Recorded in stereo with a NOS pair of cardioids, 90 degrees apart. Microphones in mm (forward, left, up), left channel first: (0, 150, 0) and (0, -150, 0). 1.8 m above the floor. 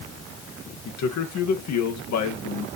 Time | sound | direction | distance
0.8 | a man speaking | 65° left | 2 m